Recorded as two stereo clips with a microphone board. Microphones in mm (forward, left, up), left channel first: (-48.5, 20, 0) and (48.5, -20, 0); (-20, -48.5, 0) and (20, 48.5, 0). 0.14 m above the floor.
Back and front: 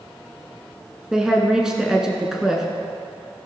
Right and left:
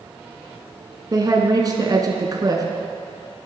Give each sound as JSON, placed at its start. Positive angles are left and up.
{"t": 1.1, "sound": "a woman speaking", "azimuth_deg": 55, "distance_m": 1.3}